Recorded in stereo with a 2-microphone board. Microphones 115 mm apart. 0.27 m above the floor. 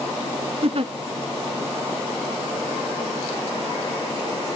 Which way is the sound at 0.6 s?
60° right (ahead or behind).